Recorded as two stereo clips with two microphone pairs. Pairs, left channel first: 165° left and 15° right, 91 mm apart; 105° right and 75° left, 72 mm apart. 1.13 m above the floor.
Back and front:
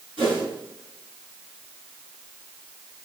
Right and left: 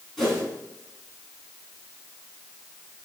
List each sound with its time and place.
0.2 s a whoosh: 25° right, 4 m